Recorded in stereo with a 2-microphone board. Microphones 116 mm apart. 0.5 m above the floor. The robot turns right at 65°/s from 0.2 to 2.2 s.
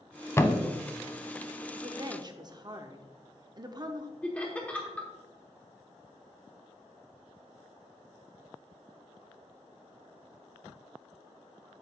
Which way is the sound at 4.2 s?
10° left (ahead or behind).